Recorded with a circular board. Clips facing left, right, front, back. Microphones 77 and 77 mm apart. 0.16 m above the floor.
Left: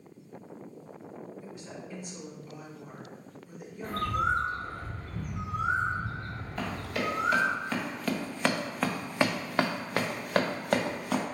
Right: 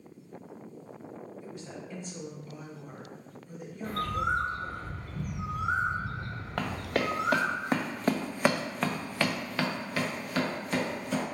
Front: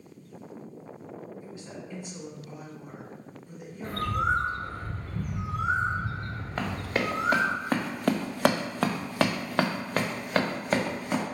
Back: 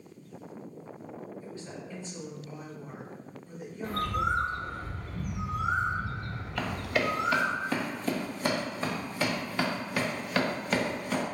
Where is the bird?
45° left, 0.7 m.